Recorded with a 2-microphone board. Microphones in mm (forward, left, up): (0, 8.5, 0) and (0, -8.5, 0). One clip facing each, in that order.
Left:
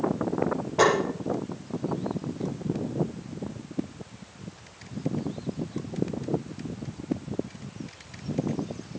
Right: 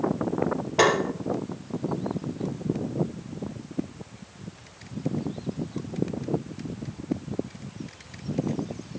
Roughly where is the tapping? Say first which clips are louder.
Right 1 dB; right.